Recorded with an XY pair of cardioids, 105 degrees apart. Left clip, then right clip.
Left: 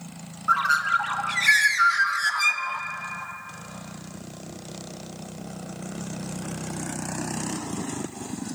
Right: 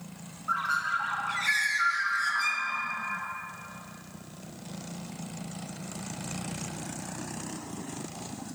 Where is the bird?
55° left, 0.5 m.